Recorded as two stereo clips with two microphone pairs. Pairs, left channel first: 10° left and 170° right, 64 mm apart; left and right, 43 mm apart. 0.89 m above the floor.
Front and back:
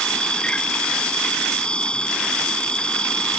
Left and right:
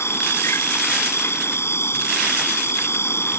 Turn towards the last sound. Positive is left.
turn(degrees=85)